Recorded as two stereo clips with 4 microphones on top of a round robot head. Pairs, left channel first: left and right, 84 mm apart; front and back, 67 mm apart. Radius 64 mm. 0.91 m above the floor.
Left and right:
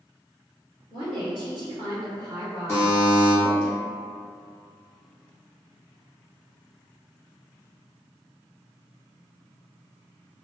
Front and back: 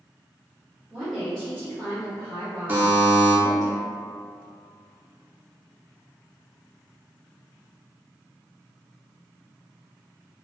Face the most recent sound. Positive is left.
turn(degrees=130)